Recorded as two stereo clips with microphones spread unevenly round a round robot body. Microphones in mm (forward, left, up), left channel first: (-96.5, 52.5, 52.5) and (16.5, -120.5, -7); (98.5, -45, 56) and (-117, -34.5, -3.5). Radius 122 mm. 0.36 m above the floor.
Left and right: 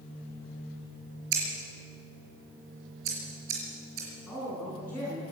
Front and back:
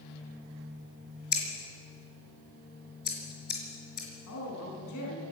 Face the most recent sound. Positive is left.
turn(degrees=35)